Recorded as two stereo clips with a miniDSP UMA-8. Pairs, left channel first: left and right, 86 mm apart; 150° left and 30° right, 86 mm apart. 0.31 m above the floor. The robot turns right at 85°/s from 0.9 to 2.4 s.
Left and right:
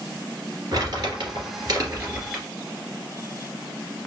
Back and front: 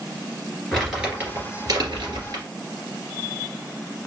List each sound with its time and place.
0.7 s crumpling: 120° right, 2 m; by 2.4 s 10° left, 2 m